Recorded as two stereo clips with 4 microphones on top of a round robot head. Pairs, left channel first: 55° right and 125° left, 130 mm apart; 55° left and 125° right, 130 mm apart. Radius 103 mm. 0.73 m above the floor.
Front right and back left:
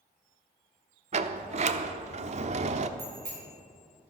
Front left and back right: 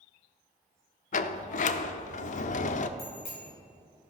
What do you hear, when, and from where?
1.1 s a sliding door: 85° left, 0.7 m
3.0 s a bicycle bell: 90° left, 6 m